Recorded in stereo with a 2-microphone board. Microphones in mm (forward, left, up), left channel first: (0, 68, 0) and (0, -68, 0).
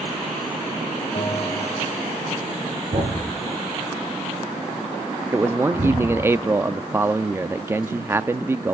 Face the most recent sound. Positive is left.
turn(degrees=-20)  # may be behind; listen again after turning